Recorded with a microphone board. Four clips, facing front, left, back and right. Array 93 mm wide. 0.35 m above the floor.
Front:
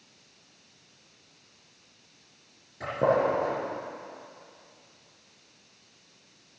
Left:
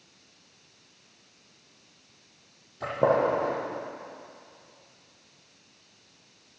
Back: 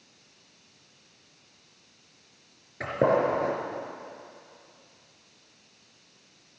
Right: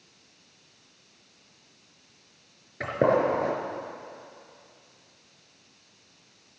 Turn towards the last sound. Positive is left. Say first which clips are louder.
# right 1 dB, back 1 dB
turn(degrees=-120)